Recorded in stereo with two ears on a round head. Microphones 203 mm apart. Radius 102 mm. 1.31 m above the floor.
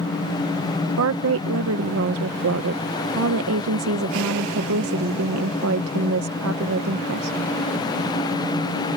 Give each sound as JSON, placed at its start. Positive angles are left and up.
{"t": 1.0, "sound": "a woman speaking", "side_deg": -65}